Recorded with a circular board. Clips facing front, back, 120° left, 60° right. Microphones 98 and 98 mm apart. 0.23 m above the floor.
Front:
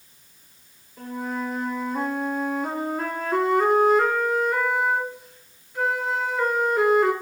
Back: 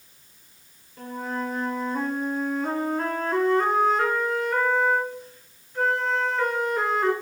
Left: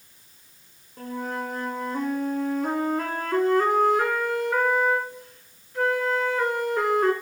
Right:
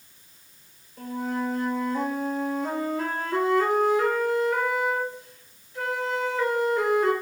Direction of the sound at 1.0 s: 85° left.